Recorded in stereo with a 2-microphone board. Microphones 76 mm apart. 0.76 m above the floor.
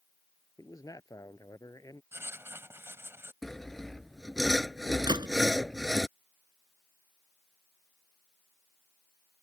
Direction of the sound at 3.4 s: 5° left (ahead or behind).